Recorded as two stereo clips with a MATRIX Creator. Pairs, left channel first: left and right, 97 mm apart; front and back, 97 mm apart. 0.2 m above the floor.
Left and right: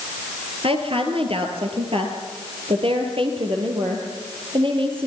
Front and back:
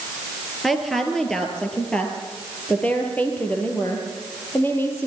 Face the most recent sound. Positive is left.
turn(degrees=-65)